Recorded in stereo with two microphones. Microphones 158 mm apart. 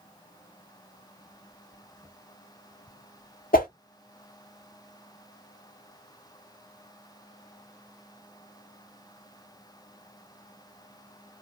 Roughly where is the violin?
No violin in this recording.